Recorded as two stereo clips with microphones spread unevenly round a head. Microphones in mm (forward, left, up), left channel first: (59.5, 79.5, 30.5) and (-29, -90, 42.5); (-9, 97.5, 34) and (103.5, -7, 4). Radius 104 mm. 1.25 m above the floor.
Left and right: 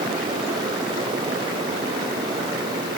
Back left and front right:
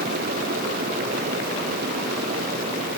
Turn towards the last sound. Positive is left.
No sound to turn to.